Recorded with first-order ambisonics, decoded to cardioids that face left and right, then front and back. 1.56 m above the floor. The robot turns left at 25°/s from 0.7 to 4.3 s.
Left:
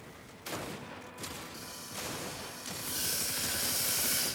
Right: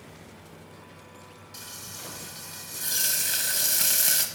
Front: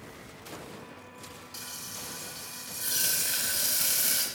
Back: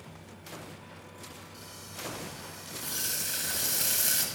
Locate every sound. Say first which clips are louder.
1.5 s frying: right 2 dB, front 6 dB; 25° right, 1.8 m; by 4.2 s 95° right, 1.8 m